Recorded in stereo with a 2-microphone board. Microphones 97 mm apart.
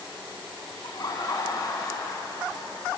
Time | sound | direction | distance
0.8 | laughter | 45° left (ahead or behind) | 2.5 m